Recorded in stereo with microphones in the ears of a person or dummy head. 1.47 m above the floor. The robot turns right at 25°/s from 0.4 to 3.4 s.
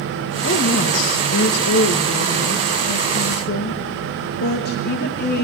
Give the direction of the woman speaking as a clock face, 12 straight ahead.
10 o'clock.